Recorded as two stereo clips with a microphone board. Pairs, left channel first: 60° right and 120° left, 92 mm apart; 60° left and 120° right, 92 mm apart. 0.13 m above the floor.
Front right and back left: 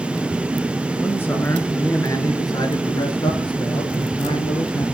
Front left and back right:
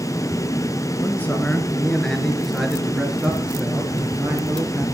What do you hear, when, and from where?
1.0 s a man speaking: straight ahead, 1.9 m; by 4.8 s 55° right, 3 m